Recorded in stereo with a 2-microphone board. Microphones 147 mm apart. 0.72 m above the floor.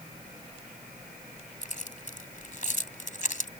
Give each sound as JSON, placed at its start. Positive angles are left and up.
{"t": 1.6, "sound": "keys jangling", "side_deg": 65}